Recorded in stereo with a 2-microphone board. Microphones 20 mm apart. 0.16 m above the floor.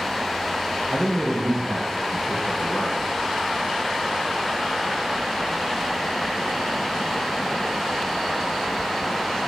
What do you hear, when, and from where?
0.9 s a man speaking: 65° left (ahead or behind), 3 m